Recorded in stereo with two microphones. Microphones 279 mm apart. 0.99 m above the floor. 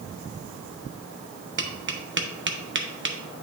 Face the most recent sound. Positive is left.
turn(degrees=-40)  # may be behind; listen again after turning